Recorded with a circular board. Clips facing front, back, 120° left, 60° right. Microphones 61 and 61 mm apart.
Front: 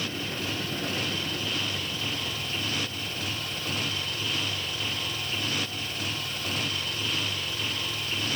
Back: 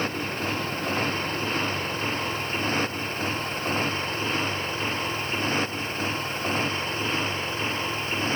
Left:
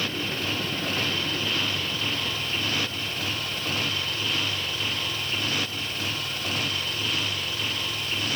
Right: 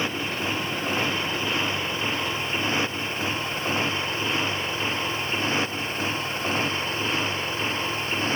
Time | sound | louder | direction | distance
0.0 | a motorcycle | back 4 dB, right 2 dB | 130° right | ?